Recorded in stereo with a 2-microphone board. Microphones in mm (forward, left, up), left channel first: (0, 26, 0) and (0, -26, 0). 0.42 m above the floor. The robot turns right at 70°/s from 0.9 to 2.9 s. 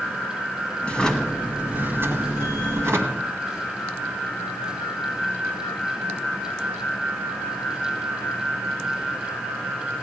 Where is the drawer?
155° left, 1.8 m; by 3.3 s 65° right, 1.8 m.